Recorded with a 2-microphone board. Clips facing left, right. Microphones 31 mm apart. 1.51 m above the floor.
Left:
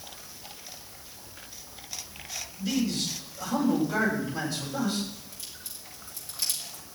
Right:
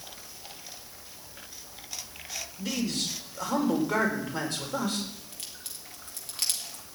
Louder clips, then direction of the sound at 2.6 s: Left 3 dB; 80° right.